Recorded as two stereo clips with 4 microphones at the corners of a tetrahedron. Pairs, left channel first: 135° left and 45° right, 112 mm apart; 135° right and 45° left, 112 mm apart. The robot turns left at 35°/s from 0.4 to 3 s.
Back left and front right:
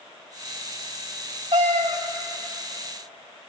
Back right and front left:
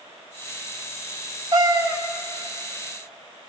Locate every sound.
1.5 s a cat meowing: 5° right, 1.3 m; by 2.0 s 20° right, 1.3 m